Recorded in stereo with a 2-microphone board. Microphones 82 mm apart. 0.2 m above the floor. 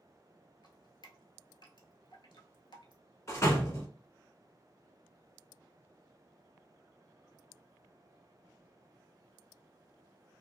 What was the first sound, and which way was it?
Dripping, 70° left (ahead or behind).